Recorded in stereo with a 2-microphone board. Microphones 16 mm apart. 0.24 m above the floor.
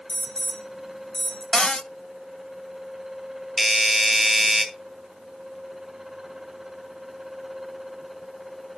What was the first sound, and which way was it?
An alarm, 65° left (ahead or behind).